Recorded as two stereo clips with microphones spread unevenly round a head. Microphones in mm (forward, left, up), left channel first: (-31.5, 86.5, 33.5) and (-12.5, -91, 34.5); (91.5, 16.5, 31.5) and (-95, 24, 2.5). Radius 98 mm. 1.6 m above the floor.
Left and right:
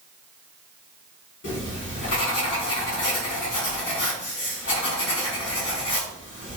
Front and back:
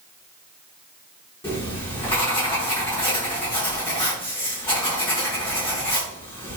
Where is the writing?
65° left, 4 m.